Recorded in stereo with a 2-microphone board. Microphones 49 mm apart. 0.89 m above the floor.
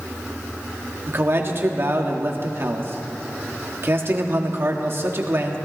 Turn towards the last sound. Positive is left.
turn(degrees=-50)  # may be behind; listen again after turning